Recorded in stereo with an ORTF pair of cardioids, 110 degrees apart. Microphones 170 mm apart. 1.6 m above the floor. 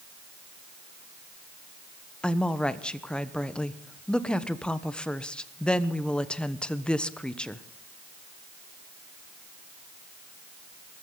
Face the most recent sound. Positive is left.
turn(degrees=5)